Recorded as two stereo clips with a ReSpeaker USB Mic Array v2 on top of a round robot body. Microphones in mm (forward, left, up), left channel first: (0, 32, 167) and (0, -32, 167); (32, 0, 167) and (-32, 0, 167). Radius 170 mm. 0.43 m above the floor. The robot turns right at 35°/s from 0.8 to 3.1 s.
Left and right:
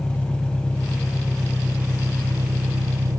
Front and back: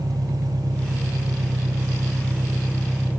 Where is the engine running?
165° left; by 3.2 s 115° right.